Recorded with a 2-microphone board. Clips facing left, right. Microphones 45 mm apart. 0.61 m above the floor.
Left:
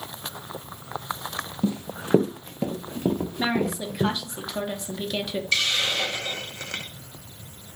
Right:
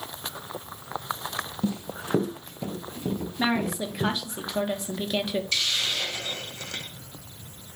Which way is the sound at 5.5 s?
45° left (ahead or behind).